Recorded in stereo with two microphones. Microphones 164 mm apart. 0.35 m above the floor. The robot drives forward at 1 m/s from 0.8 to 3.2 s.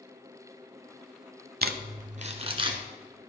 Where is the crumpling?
80° right, 0.8 m; by 2.8 s 30° right (ahead or behind), 1.5 m.